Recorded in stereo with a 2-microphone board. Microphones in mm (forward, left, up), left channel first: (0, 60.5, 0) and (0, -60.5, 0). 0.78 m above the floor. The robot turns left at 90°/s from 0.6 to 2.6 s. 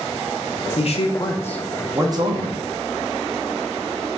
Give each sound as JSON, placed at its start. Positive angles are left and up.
{"t": 0.8, "sound": "a man speaking", "azimuth_deg": 85, "distance_m": 0.7}